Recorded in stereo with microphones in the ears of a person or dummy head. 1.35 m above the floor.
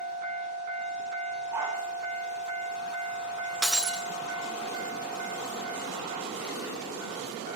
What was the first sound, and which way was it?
A dog barking, 15° right (ahead or behind).